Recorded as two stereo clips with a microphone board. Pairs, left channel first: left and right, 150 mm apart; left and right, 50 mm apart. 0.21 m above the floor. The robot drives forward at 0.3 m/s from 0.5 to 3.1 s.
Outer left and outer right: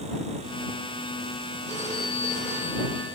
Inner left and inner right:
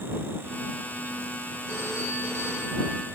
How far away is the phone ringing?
About 4.5 m.